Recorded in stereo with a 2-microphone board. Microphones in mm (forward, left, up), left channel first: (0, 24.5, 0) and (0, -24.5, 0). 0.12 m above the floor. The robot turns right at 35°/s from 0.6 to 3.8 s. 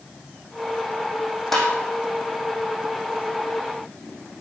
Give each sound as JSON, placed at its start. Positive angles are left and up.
{"t": 1.5, "sound": "tapping", "side_deg": 5, "distance_m": 4.0}